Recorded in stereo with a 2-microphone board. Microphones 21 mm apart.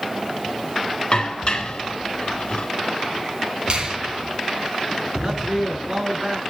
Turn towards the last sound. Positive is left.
turn(degrees=-35)  # may be behind; listen again after turning